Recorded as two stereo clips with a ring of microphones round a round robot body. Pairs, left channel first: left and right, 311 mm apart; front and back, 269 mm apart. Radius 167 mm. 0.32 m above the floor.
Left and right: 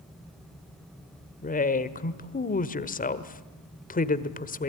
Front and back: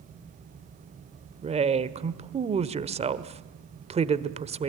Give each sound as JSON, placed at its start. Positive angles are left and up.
{"t": 1.4, "sound": "a woman speaking", "azimuth_deg": 130, "distance_m": 1.5}